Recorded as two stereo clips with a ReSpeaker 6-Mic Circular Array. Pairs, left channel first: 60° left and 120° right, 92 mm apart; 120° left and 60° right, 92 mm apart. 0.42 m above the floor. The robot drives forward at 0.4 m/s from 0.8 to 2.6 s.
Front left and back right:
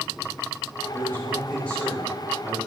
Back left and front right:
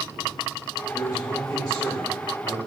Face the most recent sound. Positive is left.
turn(degrees=150)